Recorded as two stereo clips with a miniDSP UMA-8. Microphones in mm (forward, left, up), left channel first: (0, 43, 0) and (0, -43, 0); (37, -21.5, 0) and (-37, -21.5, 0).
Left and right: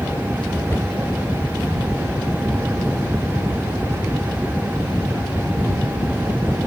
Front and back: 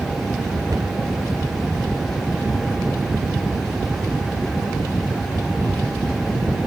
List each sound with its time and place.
0.7 s a cupboard door: 150° left, 1.8 m